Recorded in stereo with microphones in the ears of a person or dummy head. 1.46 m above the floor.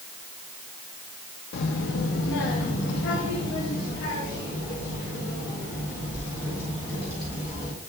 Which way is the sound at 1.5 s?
65° left (ahead or behind).